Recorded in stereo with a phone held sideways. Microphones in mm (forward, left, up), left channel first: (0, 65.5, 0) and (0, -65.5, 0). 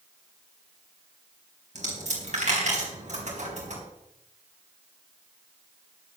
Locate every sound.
1.8 s a dropped coin: 65° right (ahead or behind), 4 m